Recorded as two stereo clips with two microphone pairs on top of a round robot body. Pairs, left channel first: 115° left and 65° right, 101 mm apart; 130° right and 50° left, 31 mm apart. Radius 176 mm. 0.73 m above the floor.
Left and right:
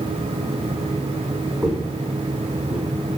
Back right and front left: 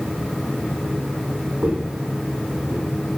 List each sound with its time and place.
1.6 s footsteps: 25° left, 2.0 m; by 2.9 s 15° left, 1.4 m